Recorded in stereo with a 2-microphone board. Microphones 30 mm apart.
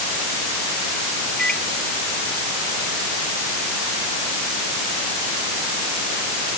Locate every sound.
1.4 s a microwave: 30° left (ahead or behind)